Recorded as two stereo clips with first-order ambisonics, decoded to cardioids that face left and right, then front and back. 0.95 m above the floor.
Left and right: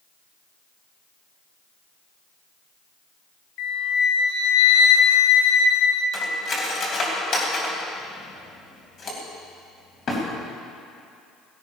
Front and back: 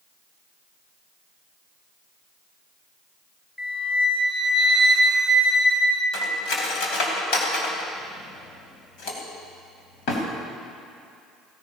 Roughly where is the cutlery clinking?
Ahead left.